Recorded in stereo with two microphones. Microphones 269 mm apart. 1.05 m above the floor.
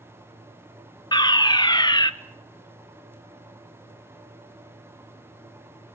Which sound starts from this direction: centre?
A fire alarm, at 1.1 s.